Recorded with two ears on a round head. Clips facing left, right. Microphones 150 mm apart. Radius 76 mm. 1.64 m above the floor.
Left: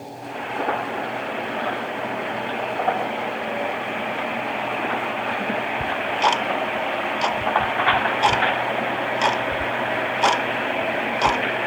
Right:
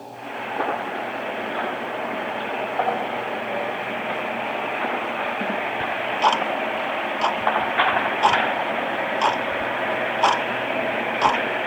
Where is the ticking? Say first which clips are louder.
Right 1 dB; 15° left (ahead or behind), 0.5 m.